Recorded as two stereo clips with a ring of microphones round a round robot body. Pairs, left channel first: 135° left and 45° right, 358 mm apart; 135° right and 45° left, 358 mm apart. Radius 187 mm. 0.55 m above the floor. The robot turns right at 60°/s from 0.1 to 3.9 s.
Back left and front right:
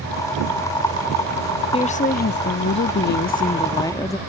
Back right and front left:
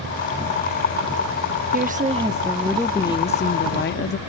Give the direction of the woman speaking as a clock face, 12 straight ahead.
9 o'clock.